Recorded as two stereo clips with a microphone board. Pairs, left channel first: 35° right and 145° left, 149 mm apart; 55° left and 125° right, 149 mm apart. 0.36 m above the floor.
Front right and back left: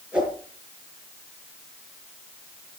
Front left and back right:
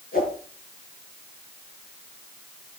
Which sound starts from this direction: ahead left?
A whoosh, at 0.1 s.